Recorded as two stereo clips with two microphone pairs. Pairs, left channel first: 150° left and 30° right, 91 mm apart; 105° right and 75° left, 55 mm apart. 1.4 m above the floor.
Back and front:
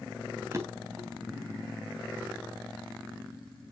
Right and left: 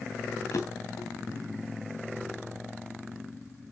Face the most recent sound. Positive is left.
turn(degrees=-90)